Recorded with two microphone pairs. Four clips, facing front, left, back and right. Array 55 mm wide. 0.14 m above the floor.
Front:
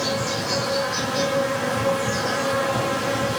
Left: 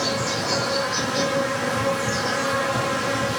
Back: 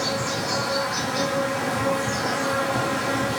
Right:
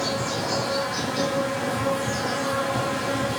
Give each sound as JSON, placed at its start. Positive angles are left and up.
{"t": 0.0, "sound": "an insect", "azimuth_deg": 75, "distance_m": 2.0}